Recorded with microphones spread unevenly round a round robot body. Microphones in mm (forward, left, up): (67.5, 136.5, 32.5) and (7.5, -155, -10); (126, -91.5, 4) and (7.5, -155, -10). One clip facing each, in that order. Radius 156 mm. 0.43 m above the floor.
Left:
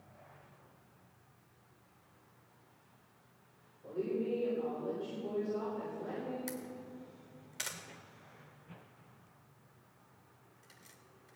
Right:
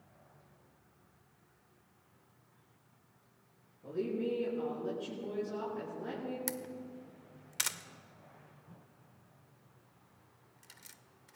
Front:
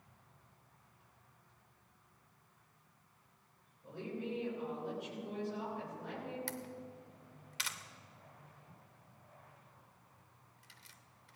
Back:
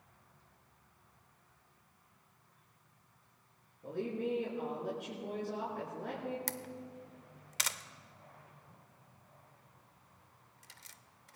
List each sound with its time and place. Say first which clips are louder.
3.8 s a woman speaking: right 1 dB, back 6 dB; 135° right, 6 m
6.5 s a camera shutter: right 1 dB, back 1 dB; 155° right, 0.6 m